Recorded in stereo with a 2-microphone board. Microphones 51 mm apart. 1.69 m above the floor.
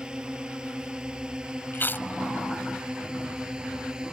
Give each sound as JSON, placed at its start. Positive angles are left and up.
{"t": 0.0, "sound": "a drone", "side_deg": -15}
{"t": 1.7, "sound": "chewing", "side_deg": 45}